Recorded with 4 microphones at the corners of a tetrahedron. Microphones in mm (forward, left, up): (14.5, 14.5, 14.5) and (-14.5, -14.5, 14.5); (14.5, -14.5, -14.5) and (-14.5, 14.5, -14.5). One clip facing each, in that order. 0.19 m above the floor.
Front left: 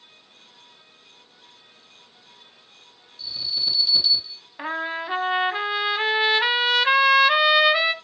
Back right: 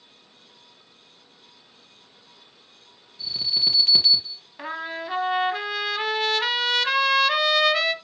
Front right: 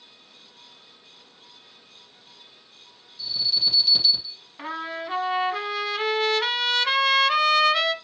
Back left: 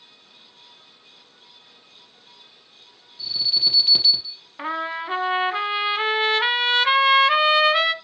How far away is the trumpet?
About 0.9 m.